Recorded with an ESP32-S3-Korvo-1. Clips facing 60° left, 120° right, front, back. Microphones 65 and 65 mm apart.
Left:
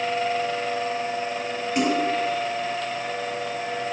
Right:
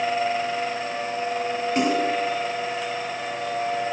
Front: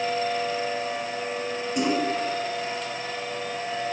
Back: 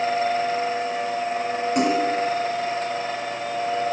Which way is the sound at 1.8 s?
Straight behind.